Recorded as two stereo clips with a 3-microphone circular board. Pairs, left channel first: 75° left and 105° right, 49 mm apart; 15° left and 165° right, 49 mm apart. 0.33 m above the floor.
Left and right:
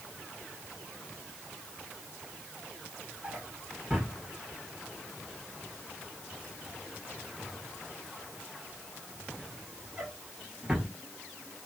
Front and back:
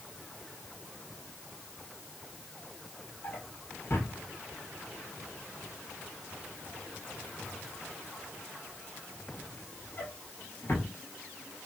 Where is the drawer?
30° right, 2 m.